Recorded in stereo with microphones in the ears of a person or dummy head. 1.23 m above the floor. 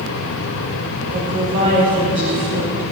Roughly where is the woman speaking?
Right.